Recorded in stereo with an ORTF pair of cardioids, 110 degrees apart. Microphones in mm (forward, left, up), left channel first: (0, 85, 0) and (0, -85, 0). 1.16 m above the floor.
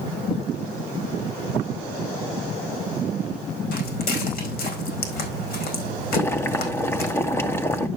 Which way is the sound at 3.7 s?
70° left.